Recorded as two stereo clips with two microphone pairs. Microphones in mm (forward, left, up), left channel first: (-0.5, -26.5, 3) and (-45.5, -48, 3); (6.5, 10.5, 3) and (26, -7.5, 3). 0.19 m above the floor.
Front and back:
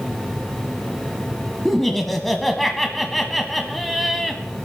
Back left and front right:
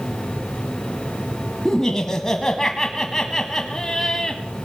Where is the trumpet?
I don't hear a trumpet.